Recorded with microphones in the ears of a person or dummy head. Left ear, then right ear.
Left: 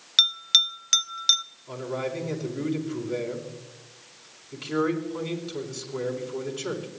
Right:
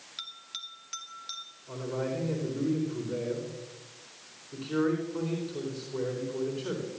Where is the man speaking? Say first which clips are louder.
Left 2 dB; 70° left (ahead or behind), 3.5 m.